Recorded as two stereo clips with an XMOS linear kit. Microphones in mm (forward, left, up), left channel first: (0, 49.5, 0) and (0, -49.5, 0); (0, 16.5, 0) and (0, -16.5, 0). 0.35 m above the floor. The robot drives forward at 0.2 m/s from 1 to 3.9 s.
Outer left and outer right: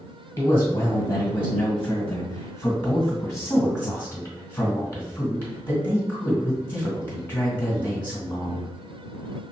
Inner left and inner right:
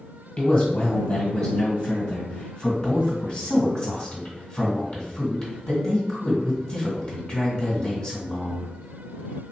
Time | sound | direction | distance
0.4 | a man speaking | 30° left (ahead or behind) | 1.5 m